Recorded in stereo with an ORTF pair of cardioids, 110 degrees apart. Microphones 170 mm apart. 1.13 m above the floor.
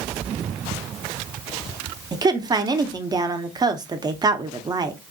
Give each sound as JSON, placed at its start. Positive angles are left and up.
{"t": 2.1, "sound": "a woman speaking", "azimuth_deg": -25, "distance_m": 0.6}